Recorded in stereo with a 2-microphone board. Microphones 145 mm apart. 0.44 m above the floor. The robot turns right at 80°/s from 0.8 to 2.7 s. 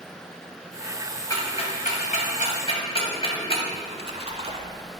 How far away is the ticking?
About 1.9 m.